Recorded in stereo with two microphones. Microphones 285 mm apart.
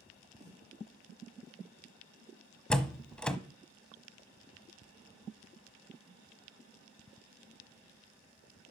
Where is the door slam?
5° left (ahead or behind), 0.9 m.